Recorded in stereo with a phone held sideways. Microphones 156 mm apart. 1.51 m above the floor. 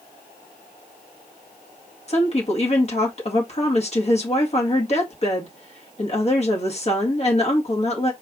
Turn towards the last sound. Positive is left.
turn(degrees=40)  # may be behind; listen again after turning